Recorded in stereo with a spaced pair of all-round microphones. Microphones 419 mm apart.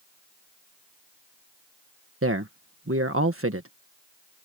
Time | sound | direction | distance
2.2 | a man speaking | 30° right (ahead or behind) | ?